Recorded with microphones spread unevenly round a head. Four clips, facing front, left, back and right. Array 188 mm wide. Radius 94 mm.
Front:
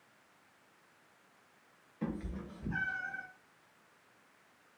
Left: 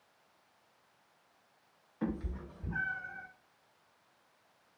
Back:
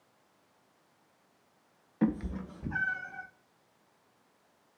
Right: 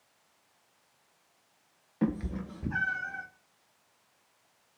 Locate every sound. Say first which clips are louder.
2.0 s a cat meowing: right 7 dB, back 9 dB; 120° right, 0.8 m; by 3.2 s 70° right, 1.8 m